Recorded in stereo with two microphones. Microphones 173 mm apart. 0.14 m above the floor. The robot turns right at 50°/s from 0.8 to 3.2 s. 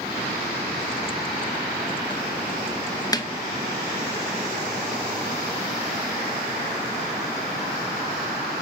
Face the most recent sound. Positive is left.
turn(degrees=25)  # may be behind; listen again after turning